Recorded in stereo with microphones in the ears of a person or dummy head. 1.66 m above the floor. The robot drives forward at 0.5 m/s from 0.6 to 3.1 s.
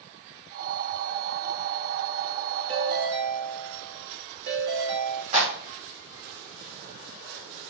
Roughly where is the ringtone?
Right.